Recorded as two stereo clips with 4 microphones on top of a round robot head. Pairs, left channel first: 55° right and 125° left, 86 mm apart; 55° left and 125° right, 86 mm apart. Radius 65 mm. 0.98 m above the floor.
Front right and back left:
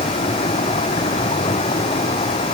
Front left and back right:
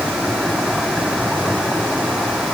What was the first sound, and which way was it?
A vehicle, 35° right.